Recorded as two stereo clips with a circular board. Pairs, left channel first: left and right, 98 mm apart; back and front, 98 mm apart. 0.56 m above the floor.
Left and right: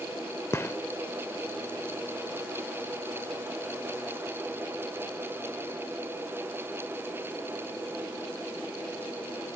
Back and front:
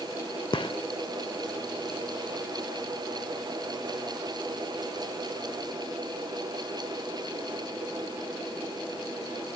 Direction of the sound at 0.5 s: 150° left.